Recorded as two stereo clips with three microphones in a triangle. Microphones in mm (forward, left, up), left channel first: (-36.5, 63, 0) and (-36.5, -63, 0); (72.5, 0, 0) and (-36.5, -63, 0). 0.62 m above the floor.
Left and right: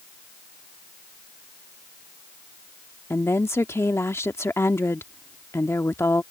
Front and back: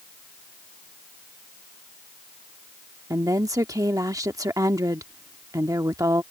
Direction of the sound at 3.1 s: 155° left.